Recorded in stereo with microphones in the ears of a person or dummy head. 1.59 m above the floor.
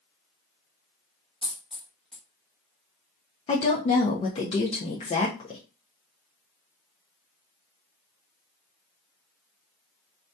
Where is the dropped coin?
10° left (ahead or behind), 0.9 m.